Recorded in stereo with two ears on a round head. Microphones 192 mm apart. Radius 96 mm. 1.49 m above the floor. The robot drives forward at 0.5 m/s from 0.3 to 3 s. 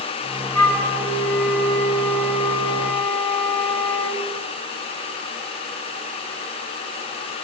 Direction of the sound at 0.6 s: 10° left (ahead or behind).